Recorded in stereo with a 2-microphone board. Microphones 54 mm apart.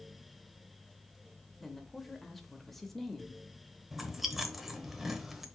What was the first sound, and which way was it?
A woman speaking, 5° left (ahead or behind).